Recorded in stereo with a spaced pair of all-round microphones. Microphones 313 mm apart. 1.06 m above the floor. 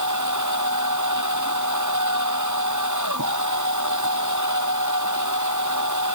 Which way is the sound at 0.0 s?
70° right (ahead or behind).